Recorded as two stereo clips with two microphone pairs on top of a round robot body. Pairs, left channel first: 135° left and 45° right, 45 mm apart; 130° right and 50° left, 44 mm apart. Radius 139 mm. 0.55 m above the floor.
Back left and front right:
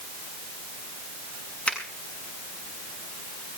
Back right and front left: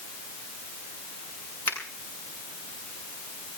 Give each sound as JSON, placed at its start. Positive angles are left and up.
{"t": 1.7, "sound": "a finger snap", "azimuth_deg": -155, "distance_m": 7.0}